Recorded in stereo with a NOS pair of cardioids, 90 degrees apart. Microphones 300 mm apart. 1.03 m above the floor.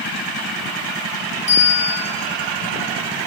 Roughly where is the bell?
Ahead right.